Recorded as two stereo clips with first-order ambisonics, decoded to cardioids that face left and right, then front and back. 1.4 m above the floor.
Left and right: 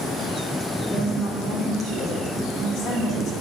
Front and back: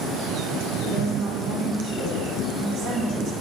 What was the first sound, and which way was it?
A woman speaking, 135° left.